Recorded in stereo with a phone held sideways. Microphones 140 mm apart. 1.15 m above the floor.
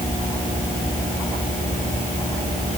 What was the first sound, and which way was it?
Only background noise.